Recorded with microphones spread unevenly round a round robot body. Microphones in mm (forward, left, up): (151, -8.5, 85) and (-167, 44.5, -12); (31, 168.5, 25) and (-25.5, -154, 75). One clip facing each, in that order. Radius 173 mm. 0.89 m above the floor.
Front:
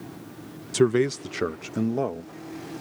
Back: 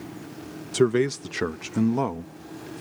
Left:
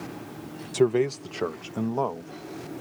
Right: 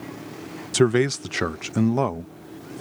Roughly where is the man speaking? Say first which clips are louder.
Even, right 3 dB; behind right.